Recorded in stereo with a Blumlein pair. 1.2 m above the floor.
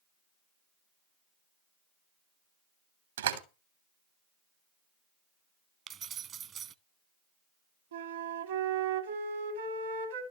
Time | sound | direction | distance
3.2 | a door slam | 65° right | 3 m
5.9 | keys jangling | 25° right | 0.9 m
7.9 | a flute | 65° right | 2.5 m